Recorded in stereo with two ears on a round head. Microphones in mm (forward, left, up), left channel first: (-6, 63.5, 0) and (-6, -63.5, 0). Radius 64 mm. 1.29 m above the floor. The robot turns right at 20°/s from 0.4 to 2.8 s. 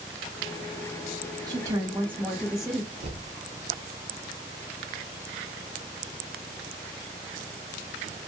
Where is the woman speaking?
25° right (ahead or behind), 0.9 m; by 2.9 s centre (ahead or behind), 0.9 m.